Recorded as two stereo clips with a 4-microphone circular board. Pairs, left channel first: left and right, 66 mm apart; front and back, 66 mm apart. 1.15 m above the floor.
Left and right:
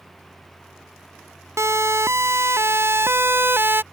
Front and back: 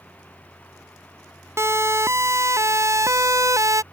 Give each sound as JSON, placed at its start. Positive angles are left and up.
{"t": 1.6, "sound": "a siren", "azimuth_deg": -135}